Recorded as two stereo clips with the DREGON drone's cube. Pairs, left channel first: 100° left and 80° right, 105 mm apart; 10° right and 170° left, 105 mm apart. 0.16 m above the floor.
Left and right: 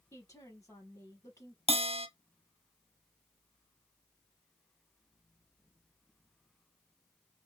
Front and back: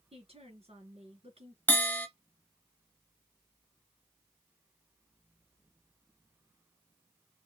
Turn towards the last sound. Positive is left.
turn(degrees=-85)